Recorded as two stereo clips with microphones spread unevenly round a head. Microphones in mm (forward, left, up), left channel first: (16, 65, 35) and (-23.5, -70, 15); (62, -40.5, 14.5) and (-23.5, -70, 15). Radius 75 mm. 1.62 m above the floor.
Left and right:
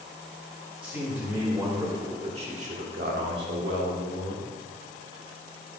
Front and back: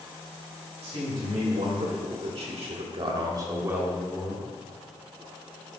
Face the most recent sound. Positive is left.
turn(degrees=-75)